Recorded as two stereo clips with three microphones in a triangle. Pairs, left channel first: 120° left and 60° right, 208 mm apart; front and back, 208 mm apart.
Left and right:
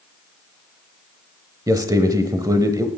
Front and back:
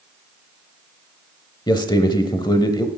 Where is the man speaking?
20° right, 0.9 m.